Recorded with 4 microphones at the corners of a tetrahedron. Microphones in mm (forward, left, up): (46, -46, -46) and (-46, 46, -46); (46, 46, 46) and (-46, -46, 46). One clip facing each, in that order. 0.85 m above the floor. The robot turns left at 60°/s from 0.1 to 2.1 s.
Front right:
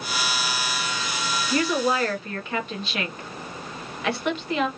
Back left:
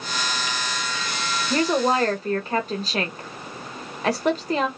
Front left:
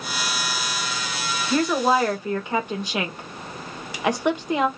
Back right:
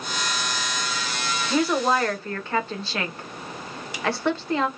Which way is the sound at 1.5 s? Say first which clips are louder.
Back left 3 dB, front left 2 dB; 150° left.